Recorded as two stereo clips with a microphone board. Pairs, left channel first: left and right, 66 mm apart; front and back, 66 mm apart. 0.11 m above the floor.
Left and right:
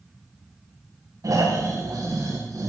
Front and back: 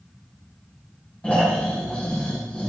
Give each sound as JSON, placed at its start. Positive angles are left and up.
{"t": 1.2, "sound": "snoring", "azimuth_deg": -70, "distance_m": 6.5}